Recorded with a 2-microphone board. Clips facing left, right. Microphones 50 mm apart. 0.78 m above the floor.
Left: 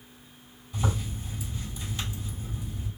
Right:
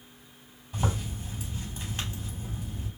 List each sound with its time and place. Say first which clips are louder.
0.7 s a zipper: even; 40° right (ahead or behind), 3 m